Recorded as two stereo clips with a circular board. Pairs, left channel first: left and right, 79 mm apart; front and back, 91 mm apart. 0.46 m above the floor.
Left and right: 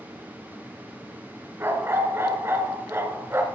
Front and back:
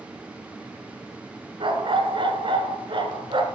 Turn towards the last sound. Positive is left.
turn(degrees=-150)